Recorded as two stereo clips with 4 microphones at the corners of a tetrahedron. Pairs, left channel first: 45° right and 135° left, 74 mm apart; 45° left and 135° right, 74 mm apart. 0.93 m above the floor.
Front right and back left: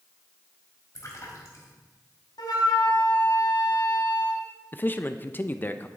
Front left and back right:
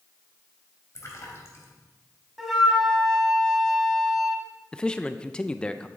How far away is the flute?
About 2 m.